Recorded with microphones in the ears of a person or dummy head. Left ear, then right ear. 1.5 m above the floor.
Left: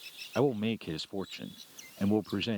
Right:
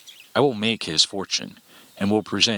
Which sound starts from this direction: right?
A man speaking, at 0.3 s.